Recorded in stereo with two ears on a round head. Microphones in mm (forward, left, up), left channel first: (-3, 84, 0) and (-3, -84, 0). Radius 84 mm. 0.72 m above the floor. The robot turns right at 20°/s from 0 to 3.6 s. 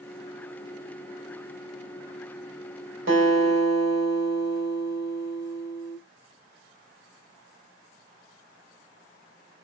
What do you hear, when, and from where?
3.1 s a guitar: 70° right (ahead or behind), 4 m; by 6.0 s 75° right (ahead or behind), 4 m